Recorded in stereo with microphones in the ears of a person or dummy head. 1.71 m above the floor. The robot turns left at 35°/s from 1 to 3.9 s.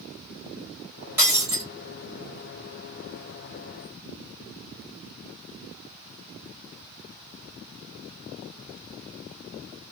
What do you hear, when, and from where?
1.2 s breaking glass: 10° right (ahead or behind), 1.5 m; by 1.6 s 20° right (ahead or behind), 1.5 m